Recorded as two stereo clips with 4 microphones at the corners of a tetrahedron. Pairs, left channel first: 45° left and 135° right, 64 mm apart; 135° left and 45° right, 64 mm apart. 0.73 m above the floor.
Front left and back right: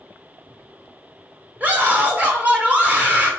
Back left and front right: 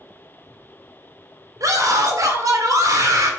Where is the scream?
70° right, 2.5 m.